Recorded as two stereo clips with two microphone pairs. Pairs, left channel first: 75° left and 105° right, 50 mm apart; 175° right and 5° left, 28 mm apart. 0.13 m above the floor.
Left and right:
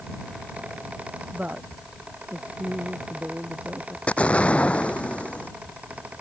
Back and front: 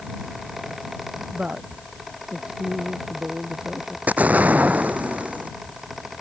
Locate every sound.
1.3 s a woman speaking: 40° right
4.1 s an explosion: 10° left